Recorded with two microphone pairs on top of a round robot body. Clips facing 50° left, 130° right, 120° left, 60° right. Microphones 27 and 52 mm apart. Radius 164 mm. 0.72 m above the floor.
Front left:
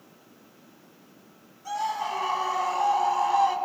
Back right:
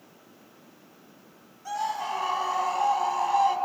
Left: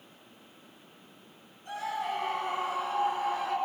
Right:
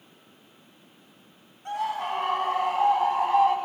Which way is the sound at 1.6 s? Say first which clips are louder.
Front left 1 dB, right 5 dB; 50° right.